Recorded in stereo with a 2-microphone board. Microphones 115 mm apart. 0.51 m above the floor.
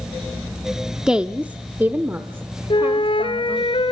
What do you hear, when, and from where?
1.1 s a woman speaking: 5° right (ahead or behind), 0.7 m; by 3.7 s 25° right (ahead or behind), 1.9 m
2.7 s a flute: 50° left (ahead or behind), 1.3 m